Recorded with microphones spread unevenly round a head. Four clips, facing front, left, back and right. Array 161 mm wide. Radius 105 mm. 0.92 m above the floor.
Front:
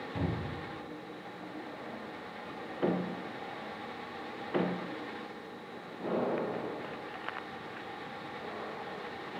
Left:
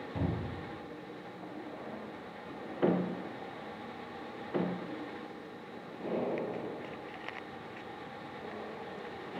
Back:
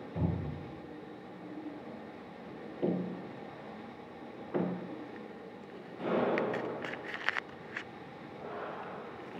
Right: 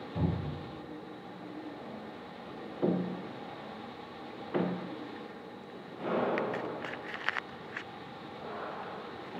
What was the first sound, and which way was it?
A cupboard door, 25° left.